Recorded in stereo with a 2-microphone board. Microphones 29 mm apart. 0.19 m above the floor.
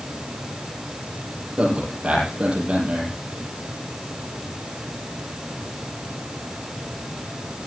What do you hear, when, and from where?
1.6 s a man speaking: 35° right (ahead or behind), 6.5 m